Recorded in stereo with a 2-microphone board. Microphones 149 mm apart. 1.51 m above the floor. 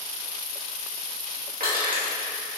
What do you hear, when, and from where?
1.6 s crushing: 85° right, 2 m